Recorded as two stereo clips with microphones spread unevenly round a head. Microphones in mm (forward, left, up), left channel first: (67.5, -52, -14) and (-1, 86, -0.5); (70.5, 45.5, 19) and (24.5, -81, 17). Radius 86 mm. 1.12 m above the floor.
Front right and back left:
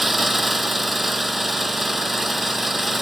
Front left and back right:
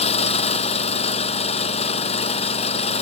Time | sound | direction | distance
0.0 | an engine running | 30° left | ?